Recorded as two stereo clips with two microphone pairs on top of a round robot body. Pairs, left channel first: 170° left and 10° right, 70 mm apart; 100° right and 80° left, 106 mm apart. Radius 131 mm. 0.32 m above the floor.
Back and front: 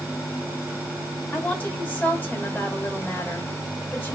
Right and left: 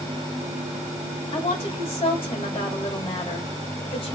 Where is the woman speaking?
125° right, 2.5 m.